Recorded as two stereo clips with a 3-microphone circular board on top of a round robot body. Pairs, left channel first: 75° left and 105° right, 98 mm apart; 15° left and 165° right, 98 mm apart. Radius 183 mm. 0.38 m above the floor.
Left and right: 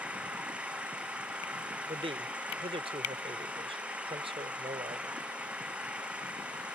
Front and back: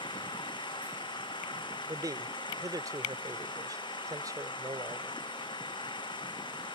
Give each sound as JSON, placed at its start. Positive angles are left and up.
{"t": 0.0, "sound": "an engine running", "azimuth_deg": -25}
{"t": 1.9, "sound": "a man speaking", "azimuth_deg": -115}